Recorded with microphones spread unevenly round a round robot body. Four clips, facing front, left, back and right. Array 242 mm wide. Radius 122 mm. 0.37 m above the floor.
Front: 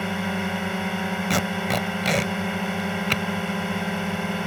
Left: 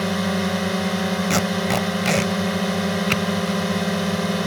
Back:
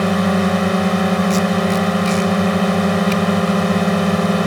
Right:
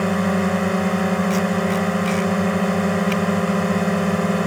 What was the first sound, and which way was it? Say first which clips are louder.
A drone: right 3 dB, back 11 dB; 160° right.